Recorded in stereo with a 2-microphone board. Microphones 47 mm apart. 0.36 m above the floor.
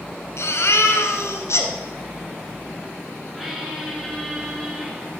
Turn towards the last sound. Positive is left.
turn(degrees=-5)  # may be behind; listen again after turning